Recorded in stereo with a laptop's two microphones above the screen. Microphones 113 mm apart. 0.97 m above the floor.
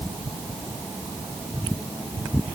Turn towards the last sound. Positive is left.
No sound to turn to.